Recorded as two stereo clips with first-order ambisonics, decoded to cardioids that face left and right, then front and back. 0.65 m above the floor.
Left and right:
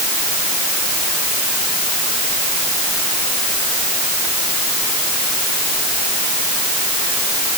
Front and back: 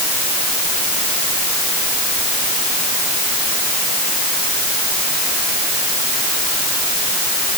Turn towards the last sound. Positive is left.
No sound to turn to.